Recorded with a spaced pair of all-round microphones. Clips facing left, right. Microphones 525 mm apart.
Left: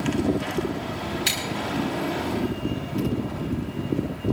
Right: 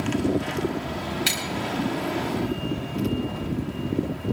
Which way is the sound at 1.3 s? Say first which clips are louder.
Right 1 dB; 85° right.